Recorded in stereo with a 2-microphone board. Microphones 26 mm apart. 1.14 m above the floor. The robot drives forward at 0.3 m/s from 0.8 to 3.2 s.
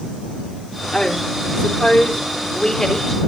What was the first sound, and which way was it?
A woman speaking, 20° left (ahead or behind).